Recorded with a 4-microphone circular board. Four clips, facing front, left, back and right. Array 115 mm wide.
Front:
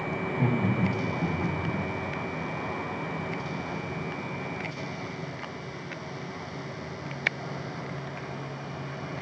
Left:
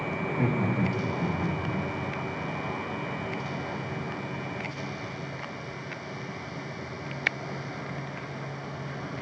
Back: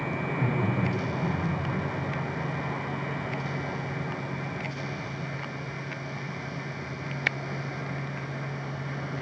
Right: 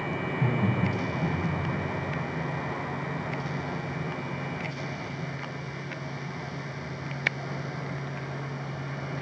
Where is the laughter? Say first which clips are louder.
Left 1 dB, front 2 dB; 70° left, 2.5 m; by 1.8 s 50° left, 2.5 m.